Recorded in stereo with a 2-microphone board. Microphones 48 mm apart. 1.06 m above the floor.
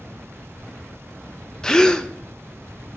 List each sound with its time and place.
1.6 s a gasp: 15° left (ahead or behind), 0.6 m